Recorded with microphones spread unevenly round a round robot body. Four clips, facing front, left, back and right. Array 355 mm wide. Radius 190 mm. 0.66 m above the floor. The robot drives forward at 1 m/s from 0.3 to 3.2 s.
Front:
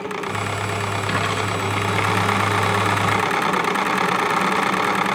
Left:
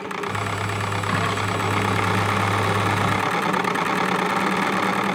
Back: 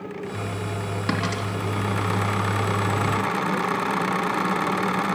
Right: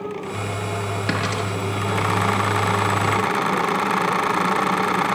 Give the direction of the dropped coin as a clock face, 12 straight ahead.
5 o'clock.